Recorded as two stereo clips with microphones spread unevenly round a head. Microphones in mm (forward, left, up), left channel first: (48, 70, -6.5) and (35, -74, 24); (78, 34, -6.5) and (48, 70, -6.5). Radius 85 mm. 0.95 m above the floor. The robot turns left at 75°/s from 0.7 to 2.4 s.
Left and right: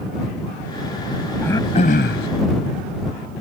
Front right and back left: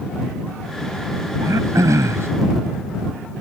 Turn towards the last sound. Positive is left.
turn(degrees=95)